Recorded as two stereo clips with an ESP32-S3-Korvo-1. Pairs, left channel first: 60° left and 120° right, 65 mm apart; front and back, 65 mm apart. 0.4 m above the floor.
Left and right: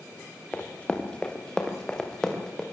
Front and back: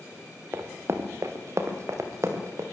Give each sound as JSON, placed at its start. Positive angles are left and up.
{"t": 0.5, "sound": "running footsteps", "azimuth_deg": 135, "distance_m": 3.0}